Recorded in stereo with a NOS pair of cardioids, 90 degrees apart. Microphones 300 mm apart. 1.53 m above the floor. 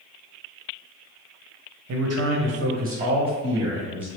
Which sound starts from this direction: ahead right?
A man speaking, at 1.9 s.